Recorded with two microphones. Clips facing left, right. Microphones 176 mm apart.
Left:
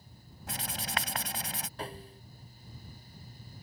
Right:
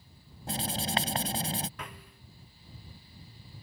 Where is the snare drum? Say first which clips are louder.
Left 5 dB; 30° left (ahead or behind).